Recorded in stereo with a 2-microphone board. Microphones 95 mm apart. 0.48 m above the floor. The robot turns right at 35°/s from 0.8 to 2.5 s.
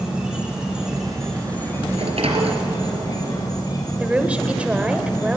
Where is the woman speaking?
15° right (ahead or behind), 1.8 m.